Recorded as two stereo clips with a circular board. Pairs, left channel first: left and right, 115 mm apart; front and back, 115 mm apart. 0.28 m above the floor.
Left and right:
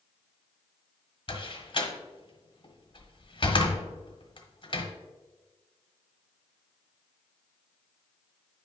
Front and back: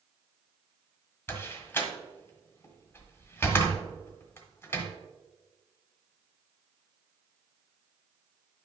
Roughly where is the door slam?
Ahead left.